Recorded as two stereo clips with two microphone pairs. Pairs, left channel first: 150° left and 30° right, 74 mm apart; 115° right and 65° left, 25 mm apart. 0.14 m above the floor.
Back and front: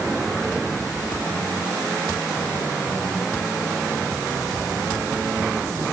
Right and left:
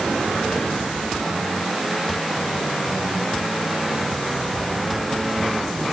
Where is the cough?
I don't hear a cough.